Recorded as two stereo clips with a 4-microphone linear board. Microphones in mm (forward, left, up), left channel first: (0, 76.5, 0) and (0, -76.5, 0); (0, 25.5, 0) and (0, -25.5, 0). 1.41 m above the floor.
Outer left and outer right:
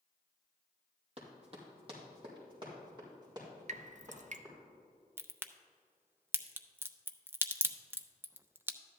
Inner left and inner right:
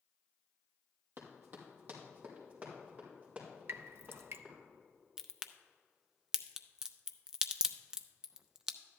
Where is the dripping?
55° right (ahead or behind), 0.6 m.